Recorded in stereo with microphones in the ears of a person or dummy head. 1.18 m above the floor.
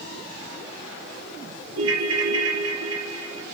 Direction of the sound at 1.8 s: 85° right.